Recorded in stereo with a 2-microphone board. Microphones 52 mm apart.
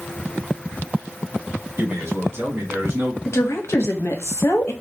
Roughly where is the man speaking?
Right.